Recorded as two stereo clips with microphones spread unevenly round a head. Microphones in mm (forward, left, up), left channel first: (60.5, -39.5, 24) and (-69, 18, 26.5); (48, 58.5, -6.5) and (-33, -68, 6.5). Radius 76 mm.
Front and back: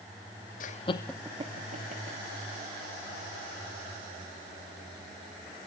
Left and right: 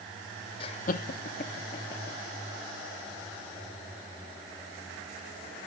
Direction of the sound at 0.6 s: 5° left.